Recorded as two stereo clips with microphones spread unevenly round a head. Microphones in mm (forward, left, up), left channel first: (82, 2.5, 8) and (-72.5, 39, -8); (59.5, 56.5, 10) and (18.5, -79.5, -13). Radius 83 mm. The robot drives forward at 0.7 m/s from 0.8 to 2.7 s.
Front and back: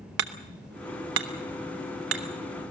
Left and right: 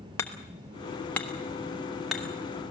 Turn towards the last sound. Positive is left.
turn(degrees=165)